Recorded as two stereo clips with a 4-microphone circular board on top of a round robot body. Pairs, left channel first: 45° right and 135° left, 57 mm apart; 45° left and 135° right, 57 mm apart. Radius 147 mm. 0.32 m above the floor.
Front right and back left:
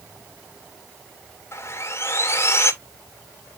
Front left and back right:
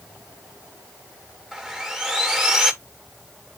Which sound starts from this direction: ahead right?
Sawing, at 1.5 s.